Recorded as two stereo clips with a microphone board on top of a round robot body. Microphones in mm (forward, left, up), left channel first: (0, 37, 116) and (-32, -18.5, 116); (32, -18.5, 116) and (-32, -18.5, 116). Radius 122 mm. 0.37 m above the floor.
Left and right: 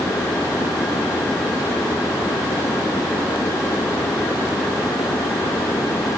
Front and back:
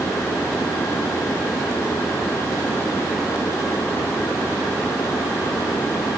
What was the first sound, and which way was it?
Only background noise.